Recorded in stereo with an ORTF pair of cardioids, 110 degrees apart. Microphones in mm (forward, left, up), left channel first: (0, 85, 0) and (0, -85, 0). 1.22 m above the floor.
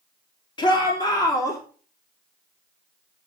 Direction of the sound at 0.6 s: 30° left.